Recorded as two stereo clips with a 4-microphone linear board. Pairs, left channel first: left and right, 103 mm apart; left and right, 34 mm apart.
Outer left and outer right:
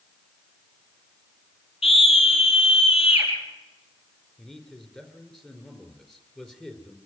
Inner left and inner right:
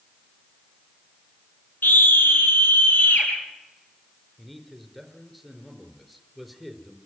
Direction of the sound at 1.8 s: 70° left (ahead or behind).